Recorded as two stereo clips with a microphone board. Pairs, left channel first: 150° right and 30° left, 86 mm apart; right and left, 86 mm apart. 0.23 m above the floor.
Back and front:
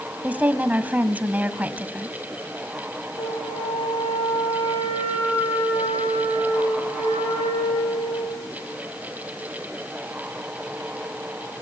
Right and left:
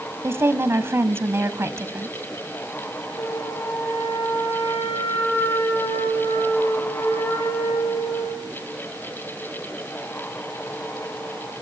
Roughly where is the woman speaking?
Left.